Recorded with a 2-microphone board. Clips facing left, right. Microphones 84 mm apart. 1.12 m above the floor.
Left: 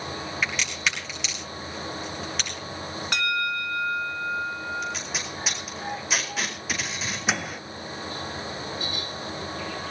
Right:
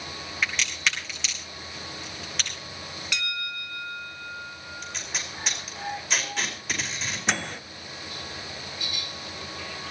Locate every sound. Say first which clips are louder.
0.4 s a crack: right 1 dB; 5° left (ahead or behind), 6 m
3.1 s a bell: left 8 dB; 45° left (ahead or behind), 0.9 m
4.8 s tape being pulled: left 5 dB; 5° left (ahead or behind), 4.5 m
7.3 s a microwave: even; 5° left (ahead or behind), 0.6 m